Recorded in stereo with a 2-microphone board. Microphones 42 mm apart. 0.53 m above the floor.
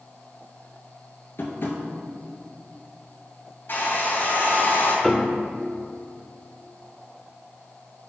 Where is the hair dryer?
55° left (ahead or behind), 2.5 m.